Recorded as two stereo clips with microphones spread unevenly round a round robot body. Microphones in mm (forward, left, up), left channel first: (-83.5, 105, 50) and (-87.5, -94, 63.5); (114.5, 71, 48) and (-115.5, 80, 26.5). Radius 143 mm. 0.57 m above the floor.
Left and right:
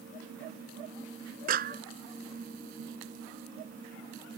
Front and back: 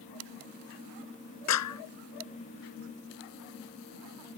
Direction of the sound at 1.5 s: 35° right.